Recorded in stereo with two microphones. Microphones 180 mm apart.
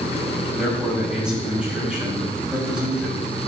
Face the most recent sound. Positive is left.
turn(degrees=-5)  # may be behind; listen again after turning